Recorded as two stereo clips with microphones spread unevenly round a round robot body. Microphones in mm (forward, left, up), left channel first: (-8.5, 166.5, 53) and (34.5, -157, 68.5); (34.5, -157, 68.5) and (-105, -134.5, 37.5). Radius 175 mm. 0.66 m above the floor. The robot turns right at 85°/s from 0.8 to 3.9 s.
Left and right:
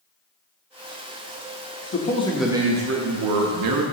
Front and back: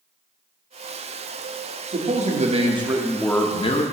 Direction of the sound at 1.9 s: 145° left.